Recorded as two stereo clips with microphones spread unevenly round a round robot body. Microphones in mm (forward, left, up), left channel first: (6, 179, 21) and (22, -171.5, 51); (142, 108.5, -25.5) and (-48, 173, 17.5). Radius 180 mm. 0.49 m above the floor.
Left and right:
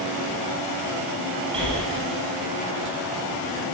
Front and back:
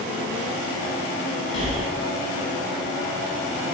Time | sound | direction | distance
1.5 | breathing | 10° right | 5 m